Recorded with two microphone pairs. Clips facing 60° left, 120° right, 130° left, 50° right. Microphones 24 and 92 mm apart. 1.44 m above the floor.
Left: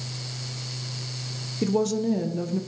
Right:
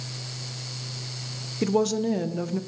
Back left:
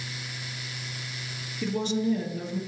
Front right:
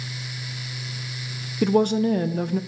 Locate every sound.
1.6 s a woman speaking: 60° right, 0.5 m